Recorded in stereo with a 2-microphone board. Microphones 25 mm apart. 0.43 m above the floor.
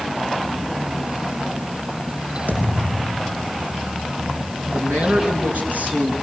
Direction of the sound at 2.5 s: 80° right.